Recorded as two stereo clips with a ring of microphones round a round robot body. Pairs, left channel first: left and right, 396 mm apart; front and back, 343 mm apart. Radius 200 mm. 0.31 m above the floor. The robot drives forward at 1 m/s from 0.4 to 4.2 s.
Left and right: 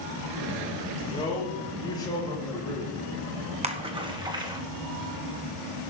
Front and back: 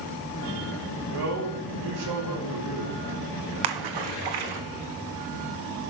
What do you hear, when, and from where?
1.1 s a man speaking: 170° left, 4.5 m
3.6 s a splash: 165° right, 1.1 m; by 4.6 s 170° right, 1.6 m